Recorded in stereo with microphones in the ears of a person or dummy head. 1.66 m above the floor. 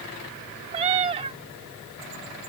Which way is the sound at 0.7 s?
30° right (ahead or behind).